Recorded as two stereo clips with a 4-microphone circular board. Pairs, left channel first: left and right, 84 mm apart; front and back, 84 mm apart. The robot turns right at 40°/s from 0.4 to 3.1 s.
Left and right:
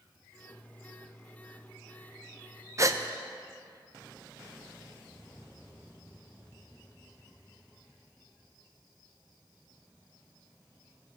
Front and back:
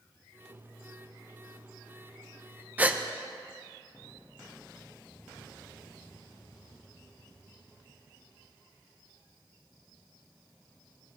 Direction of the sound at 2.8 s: 120° right.